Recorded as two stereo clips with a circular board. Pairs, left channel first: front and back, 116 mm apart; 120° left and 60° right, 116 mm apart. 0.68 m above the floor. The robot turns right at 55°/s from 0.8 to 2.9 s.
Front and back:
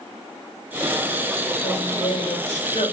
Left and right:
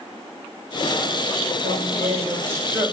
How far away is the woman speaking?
About 3 m.